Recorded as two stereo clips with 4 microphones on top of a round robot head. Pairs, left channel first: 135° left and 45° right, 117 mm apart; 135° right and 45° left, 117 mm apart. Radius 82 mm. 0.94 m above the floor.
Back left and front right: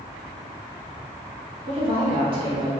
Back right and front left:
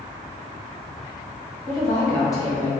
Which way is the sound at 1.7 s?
75° right.